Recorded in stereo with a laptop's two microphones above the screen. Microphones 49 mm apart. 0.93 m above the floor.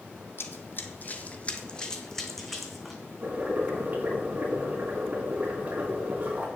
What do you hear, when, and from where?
0.4 s running footsteps: 60° left (ahead or behind), 1.7 m; by 3.0 s centre (ahead or behind), 3 m
3.2 s boiling: 35° right (ahead or behind), 4.5 m